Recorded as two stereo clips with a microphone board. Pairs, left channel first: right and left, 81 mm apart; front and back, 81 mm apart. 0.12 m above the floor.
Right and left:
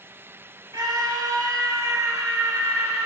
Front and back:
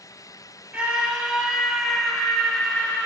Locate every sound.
0.7 s a scream: 110° left, 3 m; by 3.1 s 60° left, 2 m